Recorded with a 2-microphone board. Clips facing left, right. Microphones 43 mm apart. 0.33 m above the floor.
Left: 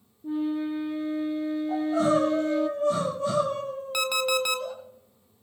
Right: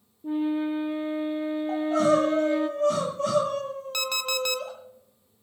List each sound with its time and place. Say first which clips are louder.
0.2 s a flute: right 2 dB; 25° right (ahead or behind), 1.6 m
1.7 s crying: right 2 dB; 65° right (ahead or behind), 9 m
3.9 s an alarm clock: left 4 dB; 10° left (ahead or behind), 1.4 m